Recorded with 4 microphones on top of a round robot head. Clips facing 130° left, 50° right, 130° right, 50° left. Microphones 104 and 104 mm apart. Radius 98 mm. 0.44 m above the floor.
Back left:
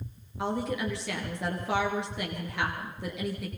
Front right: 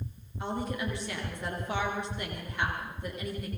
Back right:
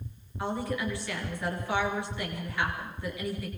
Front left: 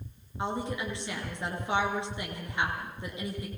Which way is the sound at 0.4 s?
115° left.